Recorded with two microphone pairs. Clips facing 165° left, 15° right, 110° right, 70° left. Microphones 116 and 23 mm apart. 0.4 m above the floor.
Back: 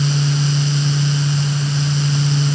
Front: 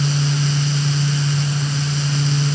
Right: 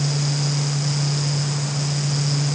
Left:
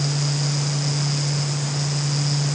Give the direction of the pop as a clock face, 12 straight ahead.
No pop in this recording.